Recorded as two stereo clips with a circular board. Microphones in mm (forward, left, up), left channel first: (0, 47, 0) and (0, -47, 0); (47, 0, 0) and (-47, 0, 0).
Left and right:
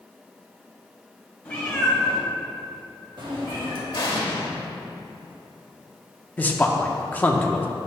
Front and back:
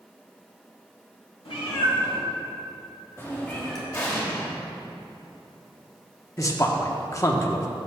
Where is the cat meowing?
15° left, 1.9 m; by 3.8 s 85° right, 1.8 m.